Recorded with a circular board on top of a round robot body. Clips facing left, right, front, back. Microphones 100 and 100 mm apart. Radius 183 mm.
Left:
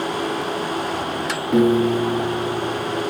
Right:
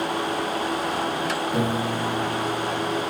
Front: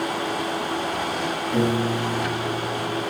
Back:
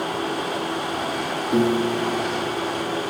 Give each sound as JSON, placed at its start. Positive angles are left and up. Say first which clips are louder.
{"t": 1.5, "sound": "a piano", "louder": "left 13 dB, back 3 dB", "azimuth_deg": 110, "distance_m": 8.0}